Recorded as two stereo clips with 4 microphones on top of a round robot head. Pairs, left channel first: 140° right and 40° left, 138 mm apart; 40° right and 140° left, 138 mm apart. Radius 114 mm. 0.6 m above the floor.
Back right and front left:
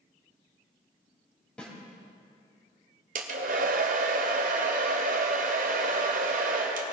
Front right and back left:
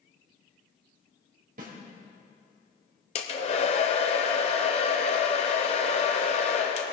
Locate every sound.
1.6 s a snare drum: 135° left, 3.5 m
3.1 s a hair dryer: 10° left, 0.7 m